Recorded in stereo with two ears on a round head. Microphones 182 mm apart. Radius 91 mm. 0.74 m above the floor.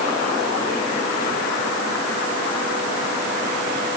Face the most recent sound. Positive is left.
No sound to turn to.